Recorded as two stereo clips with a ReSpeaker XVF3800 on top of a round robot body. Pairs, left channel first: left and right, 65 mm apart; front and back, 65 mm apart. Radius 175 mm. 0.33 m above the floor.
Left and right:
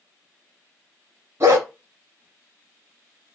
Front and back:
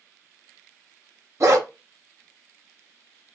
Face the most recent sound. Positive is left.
turn(degrees=-140)